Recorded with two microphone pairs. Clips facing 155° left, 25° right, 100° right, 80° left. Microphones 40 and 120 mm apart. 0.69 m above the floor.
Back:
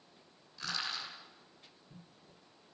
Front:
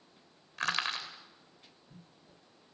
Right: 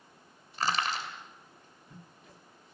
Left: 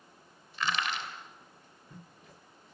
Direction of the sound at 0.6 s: 50° right.